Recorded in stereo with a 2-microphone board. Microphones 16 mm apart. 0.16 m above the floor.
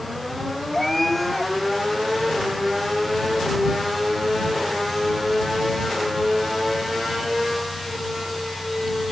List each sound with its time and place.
0.7 s a cat meowing: 10° left (ahead or behind)